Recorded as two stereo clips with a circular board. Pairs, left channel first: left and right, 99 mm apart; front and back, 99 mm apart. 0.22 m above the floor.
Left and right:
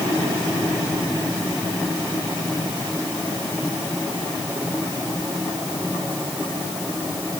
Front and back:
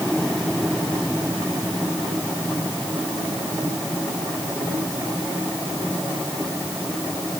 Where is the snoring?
I don't hear snoring.